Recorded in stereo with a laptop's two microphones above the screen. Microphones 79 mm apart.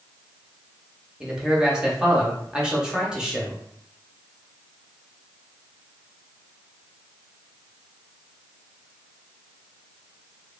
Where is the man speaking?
10° right (ahead or behind), 0.6 m.